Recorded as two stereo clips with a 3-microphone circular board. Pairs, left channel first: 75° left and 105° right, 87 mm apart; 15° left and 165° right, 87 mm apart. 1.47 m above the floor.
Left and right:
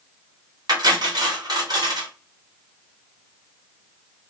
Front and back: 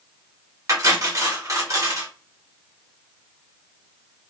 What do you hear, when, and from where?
0.7 s cutlery clinking: 125° right, 1.0 m